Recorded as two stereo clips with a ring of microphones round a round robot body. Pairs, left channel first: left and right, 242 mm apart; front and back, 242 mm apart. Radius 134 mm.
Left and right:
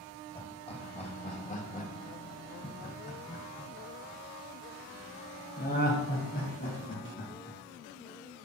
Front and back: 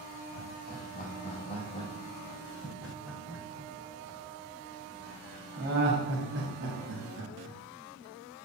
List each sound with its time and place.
0.3 s laughter: 30° left, 2.0 m; by 7.6 s 150° left, 3 m